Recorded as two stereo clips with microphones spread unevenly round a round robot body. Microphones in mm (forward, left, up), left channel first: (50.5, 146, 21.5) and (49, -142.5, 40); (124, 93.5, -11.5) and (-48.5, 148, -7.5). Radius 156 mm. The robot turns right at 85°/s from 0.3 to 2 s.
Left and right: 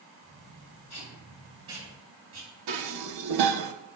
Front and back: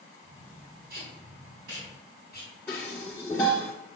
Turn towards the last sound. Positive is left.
turn(degrees=-100)